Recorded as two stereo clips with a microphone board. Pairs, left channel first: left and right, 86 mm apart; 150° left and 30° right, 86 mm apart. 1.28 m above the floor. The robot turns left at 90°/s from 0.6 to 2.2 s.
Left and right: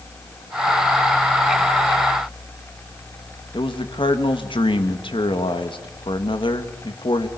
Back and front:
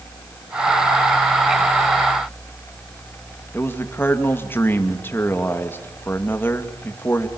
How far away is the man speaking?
About 2 m.